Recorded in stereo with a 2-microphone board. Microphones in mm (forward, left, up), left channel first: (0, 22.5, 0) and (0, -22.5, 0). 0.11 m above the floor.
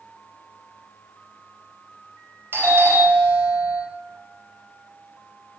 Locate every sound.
2.5 s a doorbell: 50° right (ahead or behind), 2.5 m